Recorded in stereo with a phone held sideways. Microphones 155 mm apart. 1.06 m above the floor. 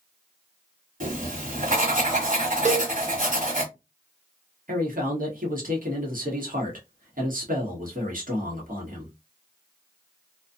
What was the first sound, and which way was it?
Writing, 55° right (ahead or behind).